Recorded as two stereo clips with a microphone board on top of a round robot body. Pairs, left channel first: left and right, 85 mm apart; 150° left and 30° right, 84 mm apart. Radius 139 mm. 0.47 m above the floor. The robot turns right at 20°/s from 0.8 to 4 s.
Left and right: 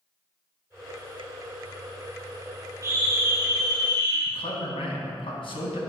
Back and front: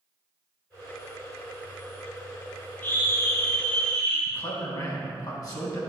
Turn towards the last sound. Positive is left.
turn(degrees=105)